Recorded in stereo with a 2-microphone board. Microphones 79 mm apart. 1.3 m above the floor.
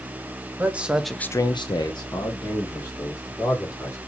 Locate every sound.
0.6 s a man speaking: 25° right (ahead or behind), 1.3 m; by 4.0 s 50° left (ahead or behind), 4 m